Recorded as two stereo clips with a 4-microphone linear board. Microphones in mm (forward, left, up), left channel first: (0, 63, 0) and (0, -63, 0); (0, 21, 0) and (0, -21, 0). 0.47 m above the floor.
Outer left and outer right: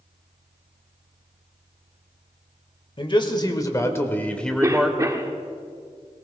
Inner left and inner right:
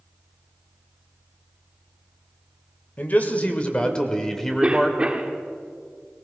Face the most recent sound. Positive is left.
turn(degrees=-25)  # may be behind; listen again after turning